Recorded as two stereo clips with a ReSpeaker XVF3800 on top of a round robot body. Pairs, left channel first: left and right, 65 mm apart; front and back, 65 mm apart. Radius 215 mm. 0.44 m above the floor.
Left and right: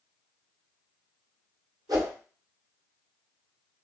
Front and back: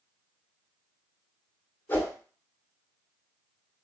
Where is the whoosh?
65° right, 0.8 m.